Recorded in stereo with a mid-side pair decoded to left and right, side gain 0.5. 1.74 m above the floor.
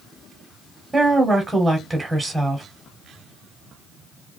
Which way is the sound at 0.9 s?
20° right.